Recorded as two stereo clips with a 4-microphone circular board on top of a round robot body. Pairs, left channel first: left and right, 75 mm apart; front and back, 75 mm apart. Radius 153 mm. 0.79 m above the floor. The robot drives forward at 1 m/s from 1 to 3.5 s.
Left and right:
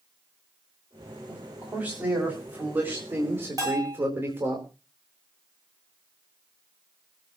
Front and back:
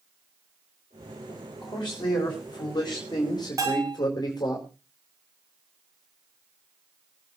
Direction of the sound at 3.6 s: 130° right.